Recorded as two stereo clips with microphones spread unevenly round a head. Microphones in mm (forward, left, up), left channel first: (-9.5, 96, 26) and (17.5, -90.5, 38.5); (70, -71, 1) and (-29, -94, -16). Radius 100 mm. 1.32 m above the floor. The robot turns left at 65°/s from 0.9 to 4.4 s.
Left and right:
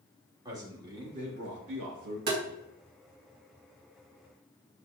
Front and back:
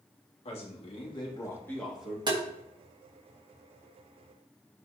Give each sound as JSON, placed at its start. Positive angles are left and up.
{"t": 0.5, "sound": "a man speaking", "azimuth_deg": -10, "distance_m": 2.5}
{"t": 2.3, "sound": "tapping", "azimuth_deg": -120, "distance_m": 2.0}